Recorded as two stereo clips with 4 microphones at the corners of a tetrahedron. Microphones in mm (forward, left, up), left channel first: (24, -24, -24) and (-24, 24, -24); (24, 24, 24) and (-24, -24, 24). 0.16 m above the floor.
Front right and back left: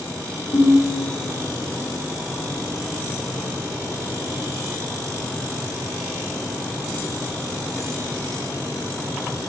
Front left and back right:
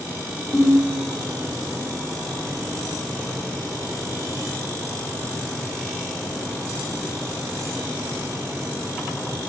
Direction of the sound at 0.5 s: 35° right.